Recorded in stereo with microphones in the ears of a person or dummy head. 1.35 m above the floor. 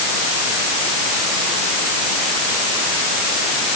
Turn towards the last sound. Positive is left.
No sound to turn to.